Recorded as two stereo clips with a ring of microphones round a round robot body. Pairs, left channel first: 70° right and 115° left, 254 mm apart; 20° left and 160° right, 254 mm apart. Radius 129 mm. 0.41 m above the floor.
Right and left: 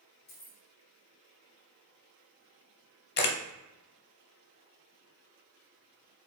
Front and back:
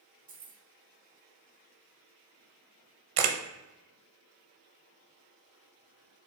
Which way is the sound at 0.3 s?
110° right.